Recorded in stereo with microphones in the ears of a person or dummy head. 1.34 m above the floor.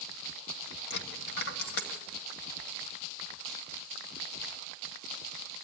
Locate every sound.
0.9 s a dropped coin: 60° left (ahead or behind), 1.9 m